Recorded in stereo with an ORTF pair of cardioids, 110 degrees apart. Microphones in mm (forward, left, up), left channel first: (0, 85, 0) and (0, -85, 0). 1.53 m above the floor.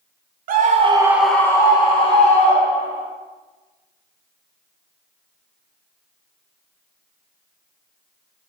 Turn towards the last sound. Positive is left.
turn(degrees=45)